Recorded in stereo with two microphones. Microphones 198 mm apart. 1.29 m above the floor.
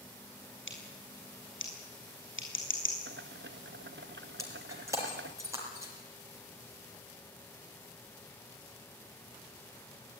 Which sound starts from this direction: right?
Boiling, at 3.1 s.